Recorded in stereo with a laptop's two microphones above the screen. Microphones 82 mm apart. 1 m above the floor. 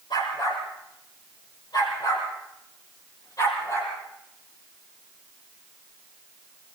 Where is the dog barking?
70° left (ahead or behind), 8.5 m; by 3.9 s 40° left (ahead or behind), 7 m.